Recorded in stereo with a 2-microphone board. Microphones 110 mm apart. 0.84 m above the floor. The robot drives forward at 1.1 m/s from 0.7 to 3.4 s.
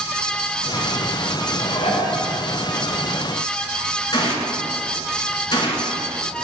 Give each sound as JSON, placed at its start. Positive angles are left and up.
{"t": 1.6, "sound": "dishes clattering", "side_deg": 80, "distance_m": 2.0}
{"t": 4.1, "sound": "a gunshot", "side_deg": 40, "distance_m": 2.0}